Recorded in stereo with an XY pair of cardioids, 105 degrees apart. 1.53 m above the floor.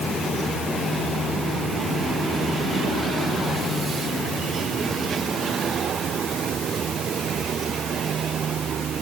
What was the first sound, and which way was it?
Only background noise.